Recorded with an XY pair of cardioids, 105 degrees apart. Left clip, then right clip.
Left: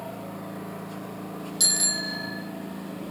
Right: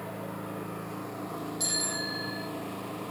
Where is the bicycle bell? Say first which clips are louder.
Left 7 dB; 70° left, 6.5 m.